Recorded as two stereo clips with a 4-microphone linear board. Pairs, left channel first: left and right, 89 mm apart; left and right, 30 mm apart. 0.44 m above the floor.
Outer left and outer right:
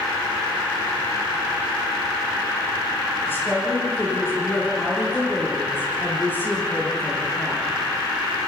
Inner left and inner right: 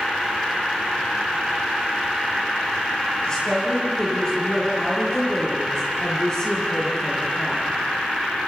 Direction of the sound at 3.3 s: 25° left (ahead or behind).